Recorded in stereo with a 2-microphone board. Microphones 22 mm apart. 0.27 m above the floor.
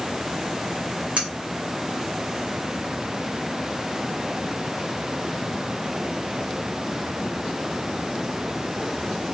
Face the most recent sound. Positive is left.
turn(degrees=-60)  # may be behind; listen again after turning